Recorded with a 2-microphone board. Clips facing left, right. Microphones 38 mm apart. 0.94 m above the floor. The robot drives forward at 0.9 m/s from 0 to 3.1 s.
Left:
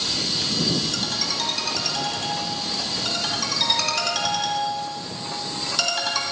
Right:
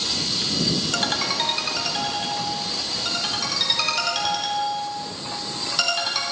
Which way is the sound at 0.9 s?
60° right (ahead or behind).